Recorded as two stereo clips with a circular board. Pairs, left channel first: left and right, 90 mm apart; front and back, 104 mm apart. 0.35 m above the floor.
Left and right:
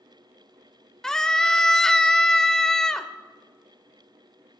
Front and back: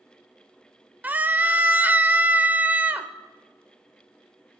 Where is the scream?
160° left, 0.8 m.